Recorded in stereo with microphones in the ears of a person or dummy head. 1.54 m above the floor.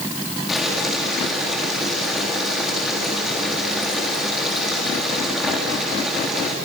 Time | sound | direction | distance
0.5 | boiling | 5° right (ahead or behind) | 3.5 m